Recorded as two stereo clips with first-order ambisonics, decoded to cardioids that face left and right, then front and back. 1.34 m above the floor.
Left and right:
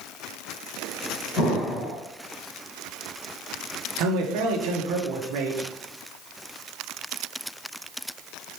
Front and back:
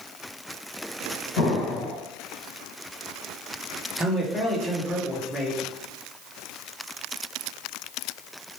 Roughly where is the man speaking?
Right.